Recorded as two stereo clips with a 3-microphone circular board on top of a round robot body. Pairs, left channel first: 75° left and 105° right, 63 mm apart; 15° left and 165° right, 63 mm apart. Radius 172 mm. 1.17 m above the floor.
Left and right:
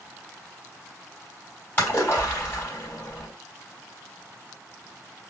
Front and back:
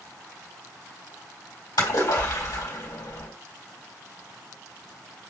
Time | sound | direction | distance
1.8 | a splash | 15° left | 3 m